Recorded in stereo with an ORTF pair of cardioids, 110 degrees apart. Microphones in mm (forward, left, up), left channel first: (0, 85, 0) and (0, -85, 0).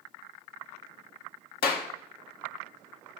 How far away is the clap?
About 1.1 m.